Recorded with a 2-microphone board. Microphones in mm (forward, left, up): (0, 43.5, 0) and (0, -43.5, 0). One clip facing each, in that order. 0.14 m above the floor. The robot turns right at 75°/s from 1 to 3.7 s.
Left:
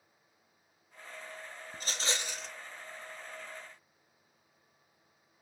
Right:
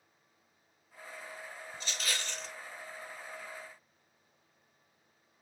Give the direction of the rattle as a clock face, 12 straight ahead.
8 o'clock.